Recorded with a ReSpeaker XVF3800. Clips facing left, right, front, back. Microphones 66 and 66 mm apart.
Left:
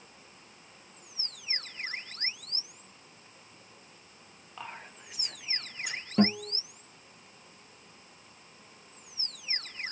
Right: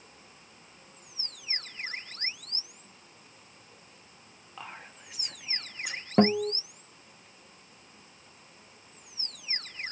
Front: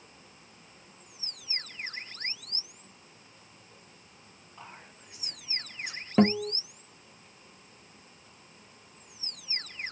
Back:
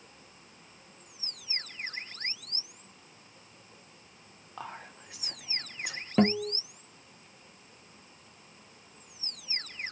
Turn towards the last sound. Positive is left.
turn(degrees=-80)